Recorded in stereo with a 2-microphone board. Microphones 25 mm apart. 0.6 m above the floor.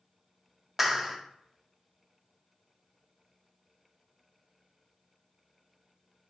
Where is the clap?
10° right (ahead or behind), 0.6 m.